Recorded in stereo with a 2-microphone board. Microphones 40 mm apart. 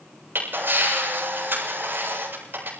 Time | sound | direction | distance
0.3 | a camera shutter | 60° right (ahead or behind) | 7.5 m